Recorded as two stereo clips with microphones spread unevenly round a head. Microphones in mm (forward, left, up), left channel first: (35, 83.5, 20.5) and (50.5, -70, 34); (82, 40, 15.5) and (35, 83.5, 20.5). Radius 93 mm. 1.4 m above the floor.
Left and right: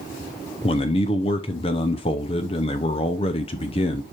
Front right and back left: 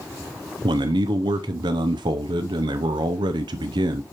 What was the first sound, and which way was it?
A man speaking, 160° left.